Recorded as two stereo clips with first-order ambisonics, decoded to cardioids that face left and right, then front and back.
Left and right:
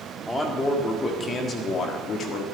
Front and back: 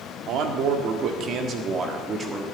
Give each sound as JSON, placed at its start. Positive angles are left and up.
{"t": 0.3, "sound": "a man speaking", "azimuth_deg": 170, "distance_m": 1.8}